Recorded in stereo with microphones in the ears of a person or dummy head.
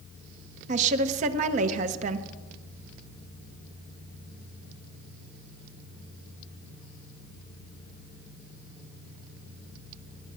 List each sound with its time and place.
0.7 s a woman speaking: 40° right (ahead or behind), 0.9 m